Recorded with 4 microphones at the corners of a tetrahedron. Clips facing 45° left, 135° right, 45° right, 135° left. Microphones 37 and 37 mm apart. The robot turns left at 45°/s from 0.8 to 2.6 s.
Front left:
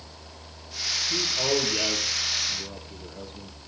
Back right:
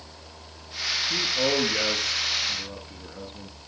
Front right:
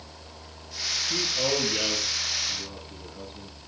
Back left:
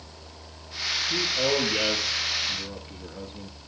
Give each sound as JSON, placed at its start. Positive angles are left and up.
{"t": 1.1, "sound": "a man speaking", "azimuth_deg": -120, "distance_m": 4.5}